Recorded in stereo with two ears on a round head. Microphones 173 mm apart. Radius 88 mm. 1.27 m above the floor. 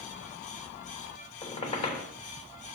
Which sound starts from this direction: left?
A squeak, at 1.4 s.